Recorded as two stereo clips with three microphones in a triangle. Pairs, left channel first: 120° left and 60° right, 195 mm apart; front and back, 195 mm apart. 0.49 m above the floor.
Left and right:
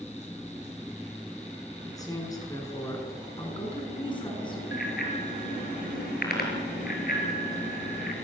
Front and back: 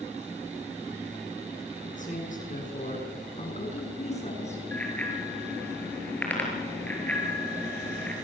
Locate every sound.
1.9 s a man speaking: 50° left, 7 m
3.4 s a woman speaking: 55° left, 6.5 m
4.7 s a bicycle bell: 80° left, 6 m